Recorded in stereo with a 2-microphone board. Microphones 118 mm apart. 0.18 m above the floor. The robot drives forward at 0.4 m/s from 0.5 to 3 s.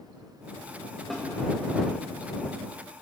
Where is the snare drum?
Centre (ahead or behind), 4 m.